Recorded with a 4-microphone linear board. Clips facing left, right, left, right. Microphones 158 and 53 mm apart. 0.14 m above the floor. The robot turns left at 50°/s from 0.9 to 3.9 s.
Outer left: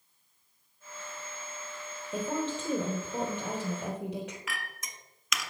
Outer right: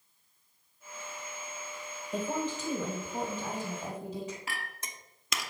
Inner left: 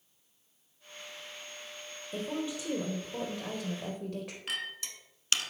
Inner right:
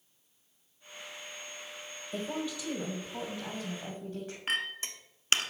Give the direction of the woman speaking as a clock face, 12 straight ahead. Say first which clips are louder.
Outer left 1 dB, even; 6 o'clock.